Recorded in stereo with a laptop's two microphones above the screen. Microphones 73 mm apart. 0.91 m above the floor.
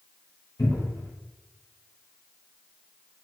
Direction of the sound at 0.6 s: 65° left (ahead or behind).